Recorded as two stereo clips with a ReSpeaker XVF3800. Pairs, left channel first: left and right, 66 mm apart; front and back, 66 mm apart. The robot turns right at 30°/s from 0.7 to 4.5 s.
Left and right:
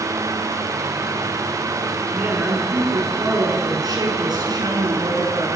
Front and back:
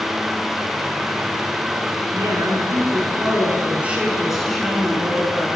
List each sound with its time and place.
2.1 s a woman speaking: 160° right, 8 m; by 5.5 s 90° right, 8 m